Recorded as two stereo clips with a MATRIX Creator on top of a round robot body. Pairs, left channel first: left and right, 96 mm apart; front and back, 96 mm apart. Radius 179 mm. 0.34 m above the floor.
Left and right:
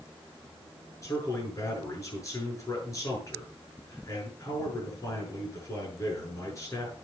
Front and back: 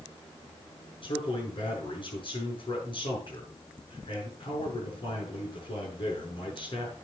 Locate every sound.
1.0 s a man speaking: 35° left, 8 m